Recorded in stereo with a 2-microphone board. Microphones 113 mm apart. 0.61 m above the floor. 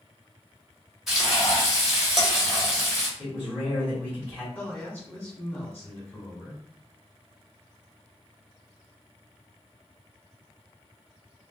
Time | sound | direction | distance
1.1 | frying | centre (ahead or behind) | 1.3 m
3.2 | a man speaking | centre (ahead or behind) | 1.5 m
4.5 | a man speaking | 10° left (ahead or behind) | 1.0 m